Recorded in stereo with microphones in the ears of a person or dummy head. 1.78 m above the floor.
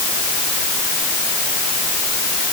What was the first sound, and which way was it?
Only background noise.